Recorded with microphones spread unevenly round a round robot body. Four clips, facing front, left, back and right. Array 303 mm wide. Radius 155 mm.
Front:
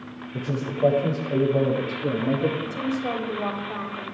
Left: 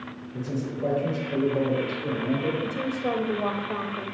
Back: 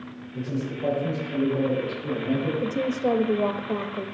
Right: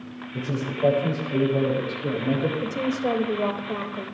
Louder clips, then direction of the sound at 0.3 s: Right 2 dB, front 2 dB; 10° right.